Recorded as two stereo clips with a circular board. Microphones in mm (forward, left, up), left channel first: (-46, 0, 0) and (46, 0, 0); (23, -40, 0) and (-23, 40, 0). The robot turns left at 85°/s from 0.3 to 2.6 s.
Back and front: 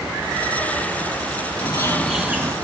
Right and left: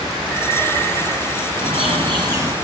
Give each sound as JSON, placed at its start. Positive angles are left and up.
{"t": 1.6, "sound": "a bird", "azimuth_deg": 140, "distance_m": 5.0}